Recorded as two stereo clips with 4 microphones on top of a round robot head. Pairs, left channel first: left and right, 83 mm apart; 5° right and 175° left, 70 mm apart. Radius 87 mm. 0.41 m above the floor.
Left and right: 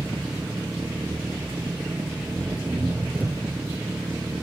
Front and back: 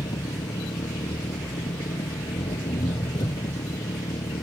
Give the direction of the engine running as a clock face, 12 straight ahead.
1 o'clock.